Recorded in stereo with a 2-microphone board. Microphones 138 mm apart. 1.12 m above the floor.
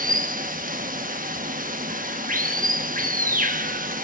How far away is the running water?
About 1.0 m.